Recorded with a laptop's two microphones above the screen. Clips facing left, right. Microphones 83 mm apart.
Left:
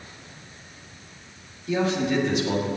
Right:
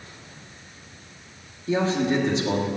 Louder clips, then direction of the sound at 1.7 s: Right 1 dB; 30° right (ahead or behind).